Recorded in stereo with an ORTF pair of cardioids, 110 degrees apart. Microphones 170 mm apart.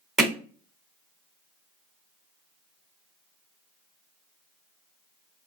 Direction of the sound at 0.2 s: Straight ahead.